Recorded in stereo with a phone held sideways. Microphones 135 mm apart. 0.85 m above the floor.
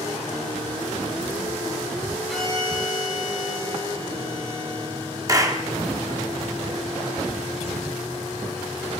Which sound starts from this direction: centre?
A violin, at 2.3 s.